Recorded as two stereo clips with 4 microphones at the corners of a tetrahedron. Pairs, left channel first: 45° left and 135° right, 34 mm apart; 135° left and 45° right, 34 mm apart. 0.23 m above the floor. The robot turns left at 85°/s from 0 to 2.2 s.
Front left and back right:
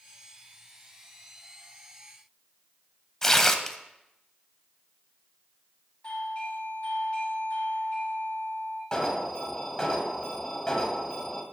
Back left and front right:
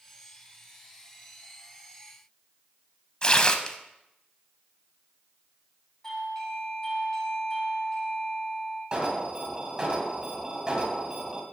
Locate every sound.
3.2 s tearing paper: 115° left, 0.5 m
6.0 s a doorbell: 75° left, 1.8 m
8.9 s an alarm: 10° right, 1.2 m